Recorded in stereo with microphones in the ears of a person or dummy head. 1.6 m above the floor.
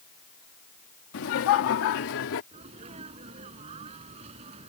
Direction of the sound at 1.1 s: 75° left (ahead or behind).